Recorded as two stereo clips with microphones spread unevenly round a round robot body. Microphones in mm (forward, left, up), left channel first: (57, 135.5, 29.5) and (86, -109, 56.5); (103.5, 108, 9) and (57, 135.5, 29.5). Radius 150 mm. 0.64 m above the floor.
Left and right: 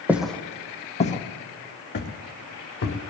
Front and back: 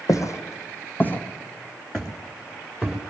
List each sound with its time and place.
0.1 s footsteps: straight ahead, 1.8 m; by 3.0 s 65° left, 4 m